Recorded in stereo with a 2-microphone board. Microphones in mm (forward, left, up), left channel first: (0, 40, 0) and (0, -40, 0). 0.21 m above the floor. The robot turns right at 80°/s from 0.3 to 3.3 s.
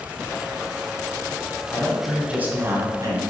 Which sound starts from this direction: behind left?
A man speaking, at 1.7 s.